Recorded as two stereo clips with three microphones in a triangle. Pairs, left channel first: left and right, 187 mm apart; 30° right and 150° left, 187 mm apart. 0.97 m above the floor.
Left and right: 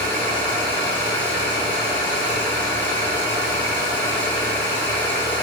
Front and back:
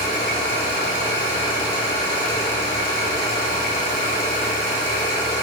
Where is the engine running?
10° left, 1.4 m.